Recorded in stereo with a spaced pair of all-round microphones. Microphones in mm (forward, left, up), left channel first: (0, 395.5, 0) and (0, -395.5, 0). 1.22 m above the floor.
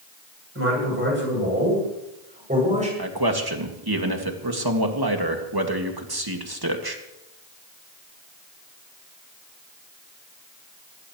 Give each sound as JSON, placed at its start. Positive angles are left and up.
{"t": 0.6, "sound": "a man speaking", "side_deg": -15, "distance_m": 8.0}
{"t": 3.0, "sound": "a man speaking", "side_deg": -30, "distance_m": 2.0}